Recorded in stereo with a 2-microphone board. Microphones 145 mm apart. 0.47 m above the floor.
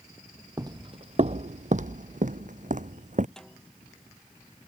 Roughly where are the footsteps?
Right.